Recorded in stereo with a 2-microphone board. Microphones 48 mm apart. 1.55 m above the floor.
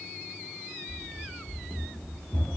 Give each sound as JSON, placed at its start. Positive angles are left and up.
{"t": 0.9, "sound": "running footsteps", "side_deg": 55, "distance_m": 2.5}